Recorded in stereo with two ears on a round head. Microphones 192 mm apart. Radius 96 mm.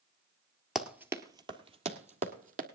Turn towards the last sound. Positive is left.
turn(degrees=-40)  # may be behind; listen again after turning